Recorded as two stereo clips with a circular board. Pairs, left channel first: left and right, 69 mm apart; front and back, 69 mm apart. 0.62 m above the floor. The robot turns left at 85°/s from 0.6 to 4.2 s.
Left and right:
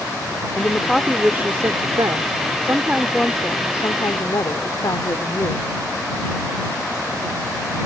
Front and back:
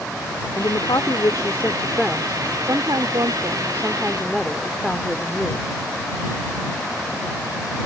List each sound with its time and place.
0.5 s a woman speaking: 35° left; by 5.7 s 85° left